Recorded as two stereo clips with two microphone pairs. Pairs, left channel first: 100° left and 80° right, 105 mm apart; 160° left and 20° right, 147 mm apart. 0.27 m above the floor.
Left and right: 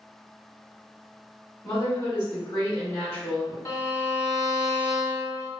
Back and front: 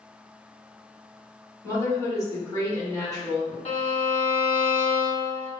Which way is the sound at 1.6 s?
105° left.